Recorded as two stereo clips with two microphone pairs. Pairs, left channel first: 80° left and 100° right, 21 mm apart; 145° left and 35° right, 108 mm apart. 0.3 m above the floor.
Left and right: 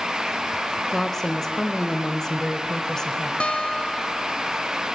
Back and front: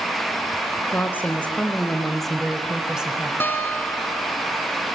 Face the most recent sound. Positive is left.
turn(degrees=80)